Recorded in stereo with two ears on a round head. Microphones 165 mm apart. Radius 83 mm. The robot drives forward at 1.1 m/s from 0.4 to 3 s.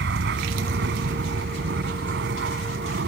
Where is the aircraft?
60° right (ahead or behind).